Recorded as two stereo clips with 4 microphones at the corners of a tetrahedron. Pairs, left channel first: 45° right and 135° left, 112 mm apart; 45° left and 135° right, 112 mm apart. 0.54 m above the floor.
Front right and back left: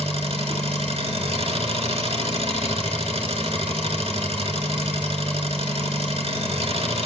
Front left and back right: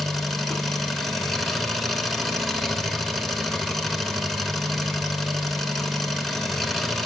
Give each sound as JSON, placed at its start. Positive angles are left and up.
{"t": 0.0, "sound": "an engine running", "azimuth_deg": 135, "distance_m": 1.5}